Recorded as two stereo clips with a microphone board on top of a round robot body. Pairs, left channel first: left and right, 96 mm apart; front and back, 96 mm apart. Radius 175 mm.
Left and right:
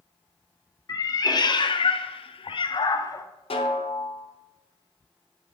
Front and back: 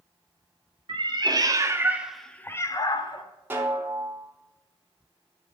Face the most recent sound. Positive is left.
turn(degrees=110)